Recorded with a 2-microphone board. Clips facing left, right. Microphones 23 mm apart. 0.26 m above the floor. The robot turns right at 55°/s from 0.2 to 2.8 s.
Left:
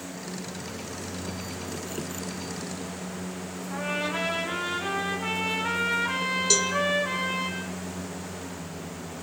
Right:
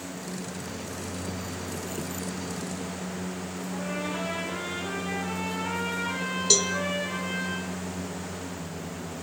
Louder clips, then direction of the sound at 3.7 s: Left 4 dB; 55° left (ahead or behind).